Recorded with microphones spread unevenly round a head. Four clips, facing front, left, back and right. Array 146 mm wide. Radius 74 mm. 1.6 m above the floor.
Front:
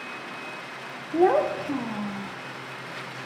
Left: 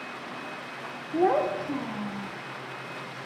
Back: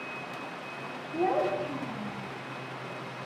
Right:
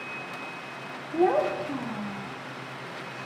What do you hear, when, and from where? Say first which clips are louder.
1.1 s a child speaking: even, front 7 dB; 5° right, 0.7 m